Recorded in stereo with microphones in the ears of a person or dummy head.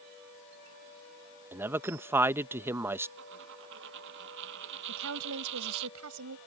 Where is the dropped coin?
75° right (ahead or behind).